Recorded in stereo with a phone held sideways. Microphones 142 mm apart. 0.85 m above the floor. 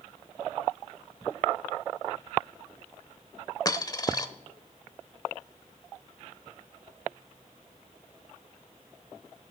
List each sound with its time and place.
3.6 s a dropped coin: 25° left (ahead or behind), 0.7 m